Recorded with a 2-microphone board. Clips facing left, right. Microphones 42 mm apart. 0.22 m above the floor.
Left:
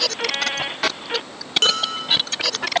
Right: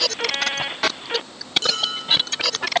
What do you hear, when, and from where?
1.6 s dishes clattering: 55° left (ahead or behind), 4.5 m